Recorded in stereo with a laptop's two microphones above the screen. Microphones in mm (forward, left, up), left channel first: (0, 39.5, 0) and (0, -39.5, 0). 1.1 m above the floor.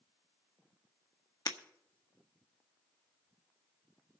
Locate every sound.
1.5 s breaking glass: 55° left (ahead or behind), 1.0 m